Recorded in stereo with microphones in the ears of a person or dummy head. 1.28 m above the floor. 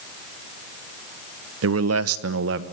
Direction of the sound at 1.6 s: 70° right (ahead or behind).